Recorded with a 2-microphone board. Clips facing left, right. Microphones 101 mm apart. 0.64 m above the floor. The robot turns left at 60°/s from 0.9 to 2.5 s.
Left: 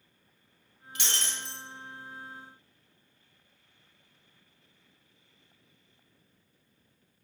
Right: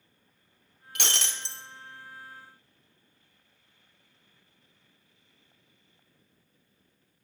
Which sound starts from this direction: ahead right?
Breaking glass, at 0.9 s.